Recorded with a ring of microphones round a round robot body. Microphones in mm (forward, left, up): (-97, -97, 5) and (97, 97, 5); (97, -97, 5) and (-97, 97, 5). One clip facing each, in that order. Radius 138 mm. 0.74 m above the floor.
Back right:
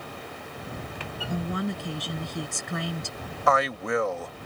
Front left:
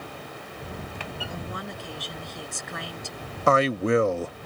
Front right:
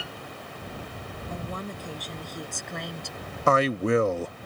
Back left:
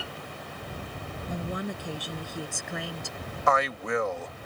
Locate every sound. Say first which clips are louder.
1.3 s a woman speaking: back right 7 dB, back left 3 dB; 150° right; by 3.2 s 135° right
3.5 s a man speaking: front left 5 dB, front right 6 dB; straight ahead